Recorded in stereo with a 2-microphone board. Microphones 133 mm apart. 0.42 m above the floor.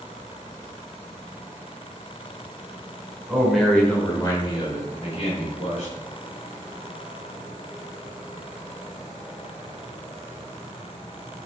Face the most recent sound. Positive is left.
turn(degrees=60)  # may be behind; listen again after turning